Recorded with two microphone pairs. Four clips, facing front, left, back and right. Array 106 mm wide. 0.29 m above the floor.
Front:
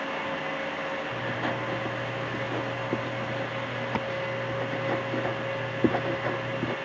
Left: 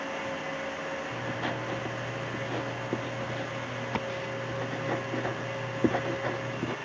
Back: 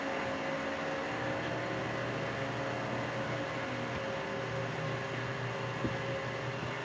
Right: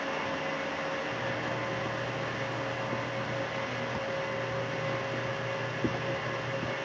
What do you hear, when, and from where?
1.1 s writing: 35° left